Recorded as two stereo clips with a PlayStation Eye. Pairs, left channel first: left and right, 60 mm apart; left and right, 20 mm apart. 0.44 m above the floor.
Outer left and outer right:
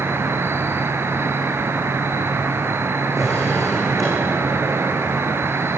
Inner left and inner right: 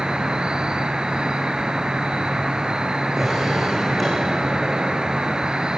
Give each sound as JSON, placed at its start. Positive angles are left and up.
{"t": 0.0, "sound": "an insect", "side_deg": -45, "distance_m": 1.5}
{"t": 3.2, "sound": "a drawer", "side_deg": 0, "distance_m": 9.0}